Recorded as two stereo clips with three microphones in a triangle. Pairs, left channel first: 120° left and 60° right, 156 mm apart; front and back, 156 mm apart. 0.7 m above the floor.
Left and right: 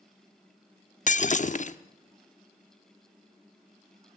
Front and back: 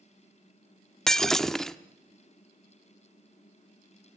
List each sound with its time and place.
1.1 s breaking glass: 90° left, 0.7 m